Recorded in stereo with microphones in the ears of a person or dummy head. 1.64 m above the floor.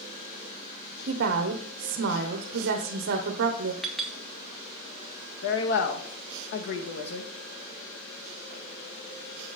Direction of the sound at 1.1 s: 70° right (ahead or behind).